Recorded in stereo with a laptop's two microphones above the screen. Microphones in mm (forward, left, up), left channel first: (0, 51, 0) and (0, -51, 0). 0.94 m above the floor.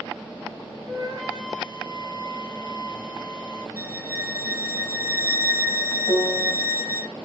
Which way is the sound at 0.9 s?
50° right (ahead or behind).